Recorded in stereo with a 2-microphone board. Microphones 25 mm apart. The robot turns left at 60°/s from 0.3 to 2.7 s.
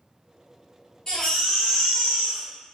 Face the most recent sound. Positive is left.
turn(degrees=-75)